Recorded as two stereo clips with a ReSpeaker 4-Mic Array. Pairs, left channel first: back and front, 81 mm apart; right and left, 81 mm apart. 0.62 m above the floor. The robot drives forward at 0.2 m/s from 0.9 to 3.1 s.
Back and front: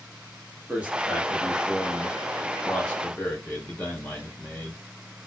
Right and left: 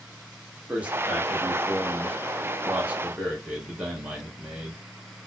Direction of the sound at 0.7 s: 45° left.